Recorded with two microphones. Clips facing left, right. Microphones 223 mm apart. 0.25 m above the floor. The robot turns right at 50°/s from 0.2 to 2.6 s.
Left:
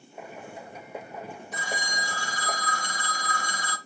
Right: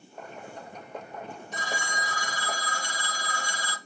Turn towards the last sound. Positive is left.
turn(degrees=55)